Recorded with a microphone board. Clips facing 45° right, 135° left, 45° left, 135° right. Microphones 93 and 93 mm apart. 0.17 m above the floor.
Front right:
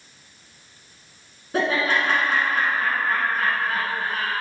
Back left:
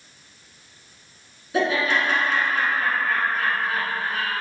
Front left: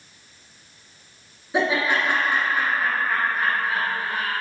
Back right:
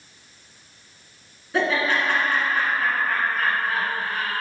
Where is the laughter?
25° right, 1.5 m.